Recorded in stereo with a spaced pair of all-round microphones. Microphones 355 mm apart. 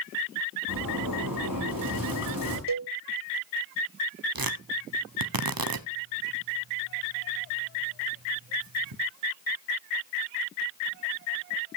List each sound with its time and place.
0.7 s a zipper: 70° right (ahead or behind), 6 m
2.7 s a cowbell: 65° right (ahead or behind), 0.6 m
4.3 s tearing paper: 75° right (ahead or behind), 1.0 m